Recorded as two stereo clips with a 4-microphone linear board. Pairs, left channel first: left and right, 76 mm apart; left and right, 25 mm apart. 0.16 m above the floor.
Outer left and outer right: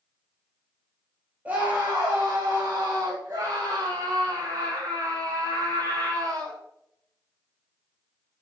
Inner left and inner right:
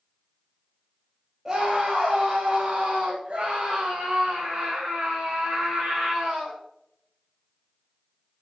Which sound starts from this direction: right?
A scream, at 1.4 s.